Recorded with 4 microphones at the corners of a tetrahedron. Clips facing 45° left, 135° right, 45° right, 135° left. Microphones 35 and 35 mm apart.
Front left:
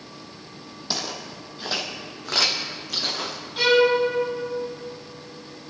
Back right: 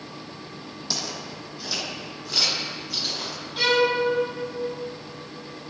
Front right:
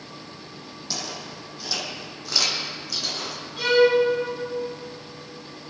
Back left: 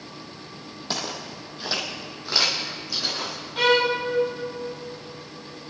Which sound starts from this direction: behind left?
A violin, at 3.6 s.